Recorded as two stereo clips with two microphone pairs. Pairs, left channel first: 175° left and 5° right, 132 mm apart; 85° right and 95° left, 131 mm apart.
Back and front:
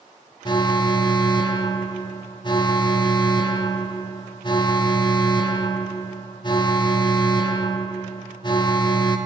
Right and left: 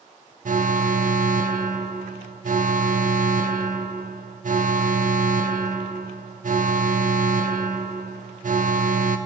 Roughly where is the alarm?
Behind left.